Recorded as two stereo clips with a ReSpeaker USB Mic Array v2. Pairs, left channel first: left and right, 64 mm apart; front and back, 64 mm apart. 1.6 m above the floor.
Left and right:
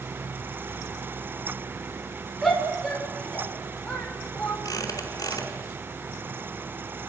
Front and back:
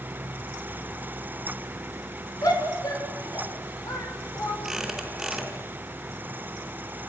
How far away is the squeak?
About 4 m.